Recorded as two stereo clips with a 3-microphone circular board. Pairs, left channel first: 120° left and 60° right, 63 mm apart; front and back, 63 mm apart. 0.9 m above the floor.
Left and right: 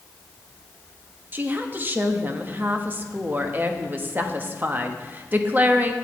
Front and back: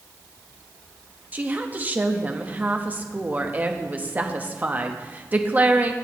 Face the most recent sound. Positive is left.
turn(degrees=-120)